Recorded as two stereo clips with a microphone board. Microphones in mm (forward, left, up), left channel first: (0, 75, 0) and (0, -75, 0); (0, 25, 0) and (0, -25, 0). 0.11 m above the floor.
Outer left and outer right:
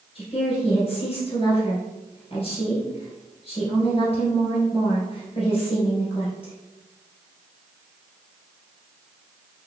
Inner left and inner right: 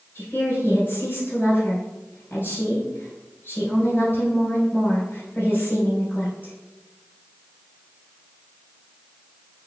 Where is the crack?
No crack in this recording.